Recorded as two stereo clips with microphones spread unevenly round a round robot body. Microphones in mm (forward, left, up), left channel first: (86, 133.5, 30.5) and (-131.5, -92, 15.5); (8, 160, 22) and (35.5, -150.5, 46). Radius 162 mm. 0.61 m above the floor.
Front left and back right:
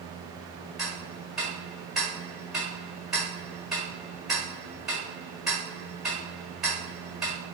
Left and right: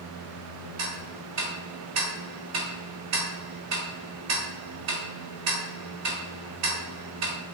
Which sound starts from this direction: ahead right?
Ticking, at 0.8 s.